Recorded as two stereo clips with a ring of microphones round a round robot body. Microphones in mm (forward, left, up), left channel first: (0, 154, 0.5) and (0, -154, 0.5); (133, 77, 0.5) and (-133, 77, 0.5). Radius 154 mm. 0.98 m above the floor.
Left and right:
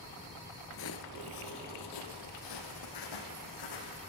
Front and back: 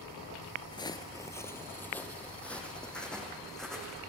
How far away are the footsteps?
About 1.2 m.